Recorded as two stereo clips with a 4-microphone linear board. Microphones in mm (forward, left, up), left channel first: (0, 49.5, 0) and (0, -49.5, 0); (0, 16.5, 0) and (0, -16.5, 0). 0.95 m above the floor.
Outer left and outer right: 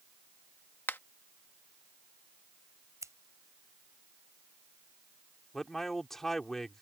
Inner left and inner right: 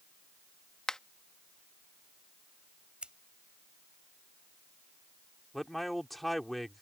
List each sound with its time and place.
0.9 s a finger snap: 20° left (ahead or behind)
3.0 s scissors: 30° right (ahead or behind)
5.5 s a man speaking: 5° left (ahead or behind)